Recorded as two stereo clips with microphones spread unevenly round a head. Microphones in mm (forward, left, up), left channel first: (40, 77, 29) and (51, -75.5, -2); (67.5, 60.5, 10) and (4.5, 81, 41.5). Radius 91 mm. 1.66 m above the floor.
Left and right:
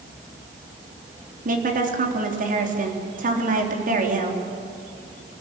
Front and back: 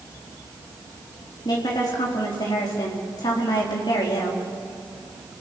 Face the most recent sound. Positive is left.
turn(degrees=-55)